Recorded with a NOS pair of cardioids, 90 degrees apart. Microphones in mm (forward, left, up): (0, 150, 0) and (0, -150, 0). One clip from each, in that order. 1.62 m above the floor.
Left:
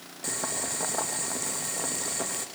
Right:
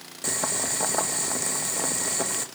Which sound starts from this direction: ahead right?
Boiling, at 0.2 s.